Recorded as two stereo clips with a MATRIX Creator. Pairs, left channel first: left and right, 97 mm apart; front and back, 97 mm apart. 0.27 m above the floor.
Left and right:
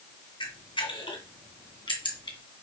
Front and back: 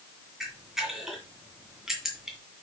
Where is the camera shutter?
95° left, 2 m.